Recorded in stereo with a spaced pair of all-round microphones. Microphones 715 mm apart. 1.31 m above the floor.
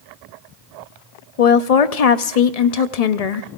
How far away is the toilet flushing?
I don't hear a toilet flushing.